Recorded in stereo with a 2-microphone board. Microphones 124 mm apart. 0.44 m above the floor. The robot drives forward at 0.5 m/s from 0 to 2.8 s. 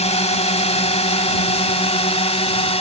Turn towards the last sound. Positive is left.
turn(degrees=55)  # may be behind; listen again after turning